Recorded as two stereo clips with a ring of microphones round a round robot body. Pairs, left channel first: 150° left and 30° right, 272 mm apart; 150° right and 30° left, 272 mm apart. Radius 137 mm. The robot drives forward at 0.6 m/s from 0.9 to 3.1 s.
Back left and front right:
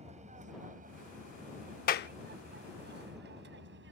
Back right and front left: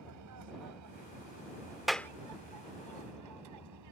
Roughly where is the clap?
Behind left.